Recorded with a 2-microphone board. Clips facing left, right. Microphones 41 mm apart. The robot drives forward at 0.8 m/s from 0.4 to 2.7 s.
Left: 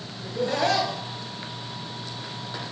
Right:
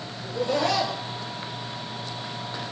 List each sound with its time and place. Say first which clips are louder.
0.2 s laughter: even; 45° left (ahead or behind), 4 m; by 1.0 s 50° left (ahead or behind), 3.5 m